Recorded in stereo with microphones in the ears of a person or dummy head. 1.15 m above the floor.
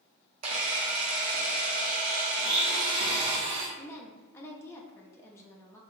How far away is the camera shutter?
About 0.9 m.